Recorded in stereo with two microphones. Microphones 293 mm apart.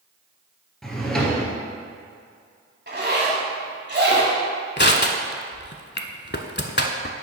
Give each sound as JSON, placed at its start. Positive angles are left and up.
{"t": 0.8, "sound": "a drawer", "side_deg": 0, "distance_m": 1.6}
{"t": 2.9, "sound": "a zipper", "side_deg": -35, "distance_m": 1.5}
{"t": 4.8, "sound": "crushing", "side_deg": 40, "distance_m": 0.6}